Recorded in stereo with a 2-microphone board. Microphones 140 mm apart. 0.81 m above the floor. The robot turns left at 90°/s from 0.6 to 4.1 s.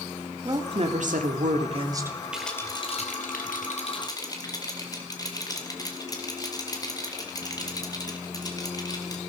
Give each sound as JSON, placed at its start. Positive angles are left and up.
{"t": 0.5, "sound": "a woman speaking", "azimuth_deg": -30, "distance_m": 1.9}
{"t": 2.3, "sound": "a rattle", "side_deg": -5, "distance_m": 2.5}